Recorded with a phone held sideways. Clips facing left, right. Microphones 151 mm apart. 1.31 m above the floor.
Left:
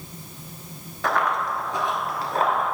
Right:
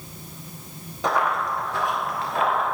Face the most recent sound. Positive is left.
turn(degrees=45)  # may be behind; listen again after turning